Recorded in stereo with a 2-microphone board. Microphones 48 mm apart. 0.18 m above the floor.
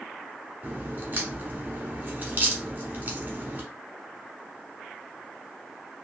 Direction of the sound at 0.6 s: 35° right (ahead or behind).